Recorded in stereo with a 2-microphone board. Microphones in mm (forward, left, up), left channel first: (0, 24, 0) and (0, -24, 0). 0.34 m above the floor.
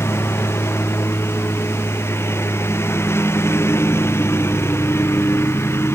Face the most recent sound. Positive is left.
turn(degrees=60)  # may be behind; listen again after turning